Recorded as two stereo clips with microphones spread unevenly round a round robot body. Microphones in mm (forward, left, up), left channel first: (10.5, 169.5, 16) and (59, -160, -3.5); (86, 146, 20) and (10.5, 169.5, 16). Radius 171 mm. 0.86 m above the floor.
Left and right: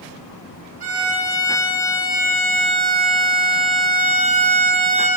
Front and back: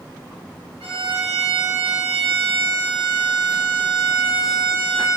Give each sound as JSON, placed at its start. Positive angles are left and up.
{"t": 0.8, "sound": "a violin", "azimuth_deg": -150, "distance_m": 3.5}